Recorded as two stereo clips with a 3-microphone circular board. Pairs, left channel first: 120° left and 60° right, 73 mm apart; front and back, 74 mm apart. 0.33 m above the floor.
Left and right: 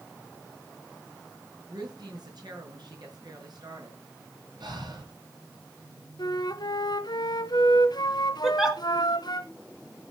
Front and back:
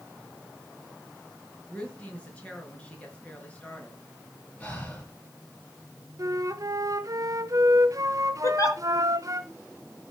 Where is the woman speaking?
75° right, 5 m.